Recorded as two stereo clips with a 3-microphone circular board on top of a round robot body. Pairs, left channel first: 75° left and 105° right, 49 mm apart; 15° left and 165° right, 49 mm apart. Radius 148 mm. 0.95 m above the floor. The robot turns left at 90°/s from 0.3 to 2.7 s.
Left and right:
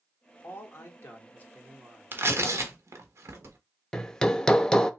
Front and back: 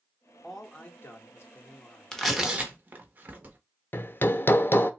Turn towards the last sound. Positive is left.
turn(degrees=0)